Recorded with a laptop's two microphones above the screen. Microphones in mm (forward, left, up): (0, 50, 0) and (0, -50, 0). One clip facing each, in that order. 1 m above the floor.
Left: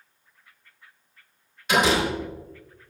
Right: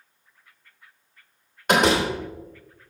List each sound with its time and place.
1.7 s a door slam: 55° right (ahead or behind), 2.5 m